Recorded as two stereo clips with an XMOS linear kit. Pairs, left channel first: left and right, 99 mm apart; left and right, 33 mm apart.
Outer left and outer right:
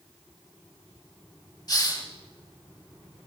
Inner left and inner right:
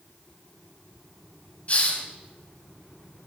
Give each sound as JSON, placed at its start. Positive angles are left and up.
{"t": 1.7, "sound": "a hiss", "side_deg": 40, "distance_m": 2.0}